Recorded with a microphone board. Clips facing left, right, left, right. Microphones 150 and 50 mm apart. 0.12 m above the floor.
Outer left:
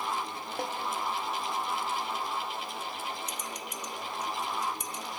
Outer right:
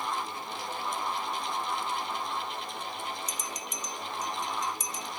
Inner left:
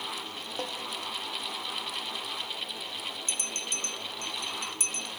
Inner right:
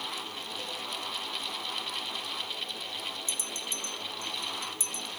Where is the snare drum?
60° left (ahead or behind), 4 m.